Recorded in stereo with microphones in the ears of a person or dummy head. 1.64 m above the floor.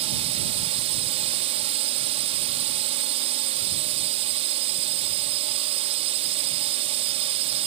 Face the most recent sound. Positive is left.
turn(degrees=-35)  # may be behind; listen again after turning